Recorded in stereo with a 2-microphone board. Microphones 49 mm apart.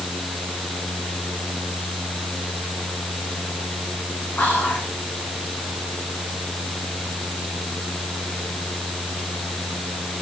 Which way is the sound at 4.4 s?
35° left (ahead or behind).